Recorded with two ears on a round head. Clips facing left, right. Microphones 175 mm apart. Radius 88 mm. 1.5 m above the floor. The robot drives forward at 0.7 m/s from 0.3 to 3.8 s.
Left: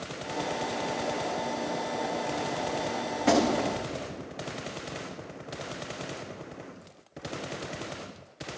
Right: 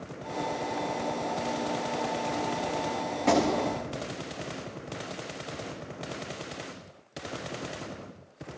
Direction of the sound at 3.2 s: 5° left (ahead or behind).